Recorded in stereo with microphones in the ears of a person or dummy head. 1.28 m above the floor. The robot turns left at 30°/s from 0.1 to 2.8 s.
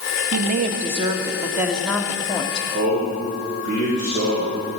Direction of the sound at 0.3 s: 135° right.